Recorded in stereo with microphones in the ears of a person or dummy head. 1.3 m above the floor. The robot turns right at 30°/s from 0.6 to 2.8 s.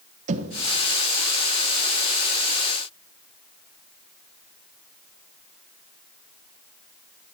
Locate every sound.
0.3 s knocking: 40° right (ahead or behind), 0.9 m